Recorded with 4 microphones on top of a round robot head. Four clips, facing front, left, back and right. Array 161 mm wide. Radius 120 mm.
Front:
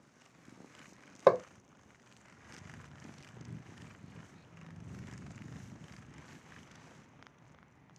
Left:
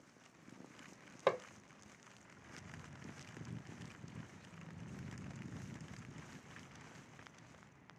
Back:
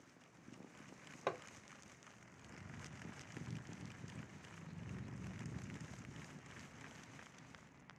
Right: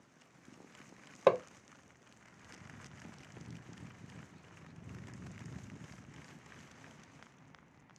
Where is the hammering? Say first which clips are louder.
Right 8 dB, front 18 dB; 30° right.